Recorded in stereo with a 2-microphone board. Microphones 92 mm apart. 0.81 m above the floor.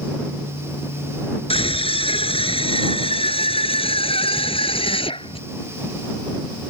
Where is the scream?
85° left; by 5.4 s 75° left (ahead or behind).